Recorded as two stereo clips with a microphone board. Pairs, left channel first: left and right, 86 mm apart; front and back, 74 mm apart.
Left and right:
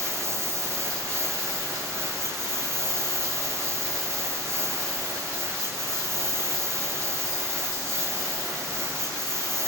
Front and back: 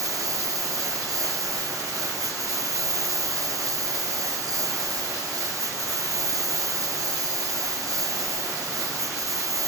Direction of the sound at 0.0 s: 145° right.